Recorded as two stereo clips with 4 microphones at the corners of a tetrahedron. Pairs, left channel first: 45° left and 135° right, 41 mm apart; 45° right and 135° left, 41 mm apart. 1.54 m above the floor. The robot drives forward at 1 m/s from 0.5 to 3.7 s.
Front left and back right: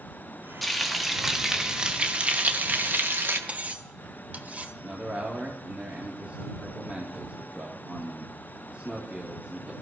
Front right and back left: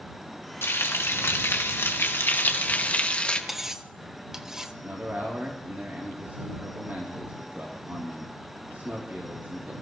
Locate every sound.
0.6 s frying: 45° right, 3 m; by 3.4 s 110° right, 2 m
3.5 s cutlery clinking: 145° right, 0.9 m; by 4.7 s 155° right, 1.0 m
4.8 s a man speaking: 175° left, 3 m